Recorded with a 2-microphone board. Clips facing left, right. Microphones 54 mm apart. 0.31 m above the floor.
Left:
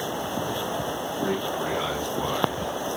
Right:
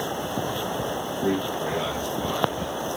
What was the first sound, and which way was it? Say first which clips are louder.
A man speaking: right 2 dB; 65° left (ahead or behind).